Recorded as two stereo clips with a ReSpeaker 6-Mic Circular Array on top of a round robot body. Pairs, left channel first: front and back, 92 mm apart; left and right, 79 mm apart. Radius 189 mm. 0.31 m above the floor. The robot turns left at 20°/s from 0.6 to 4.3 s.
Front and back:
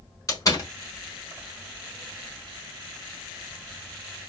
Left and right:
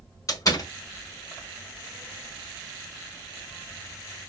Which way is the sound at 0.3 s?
50° left.